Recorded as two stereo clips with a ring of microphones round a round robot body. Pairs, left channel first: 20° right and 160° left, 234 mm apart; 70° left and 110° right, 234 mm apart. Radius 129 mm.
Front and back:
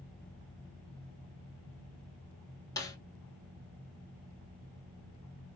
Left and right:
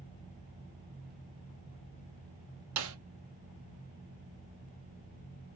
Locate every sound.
2.8 s a snare drum: 100° right, 0.7 m